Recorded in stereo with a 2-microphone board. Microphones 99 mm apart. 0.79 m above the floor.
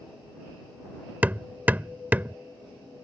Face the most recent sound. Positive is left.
turn(degrees=-20)  # may be behind; listen again after turning